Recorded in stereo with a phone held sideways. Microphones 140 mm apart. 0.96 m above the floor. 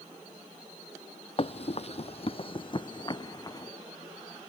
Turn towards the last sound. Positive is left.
turn(degrees=25)  # may be behind; listen again after turning